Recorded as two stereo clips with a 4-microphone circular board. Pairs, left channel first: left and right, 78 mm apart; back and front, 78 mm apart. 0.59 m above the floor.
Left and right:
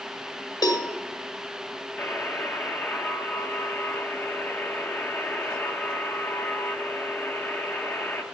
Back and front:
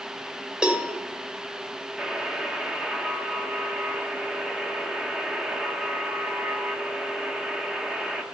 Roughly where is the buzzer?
Ahead left.